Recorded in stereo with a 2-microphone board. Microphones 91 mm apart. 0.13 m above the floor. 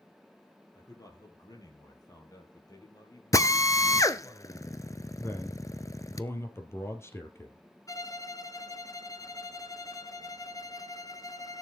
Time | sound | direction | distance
0.8 | a man speaking | 45° left (ahead or behind) | 3.5 m
3.3 | a drill | 40° left (ahead or behind) | 0.8 m
5.2 | a man speaking | 30° left (ahead or behind) | 2.5 m
7.9 | a violin | 40° left (ahead or behind) | 1.1 m